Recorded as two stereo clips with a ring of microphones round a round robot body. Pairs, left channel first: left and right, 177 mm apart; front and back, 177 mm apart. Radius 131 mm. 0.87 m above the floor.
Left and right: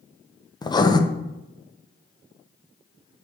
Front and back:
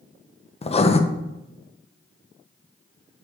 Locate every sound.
0.6 s writing: 35° left, 0.7 m